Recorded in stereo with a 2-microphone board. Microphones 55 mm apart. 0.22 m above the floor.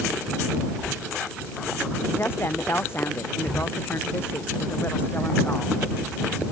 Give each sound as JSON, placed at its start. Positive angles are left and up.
{"t": 2.2, "sound": "a woman speaking", "side_deg": 40}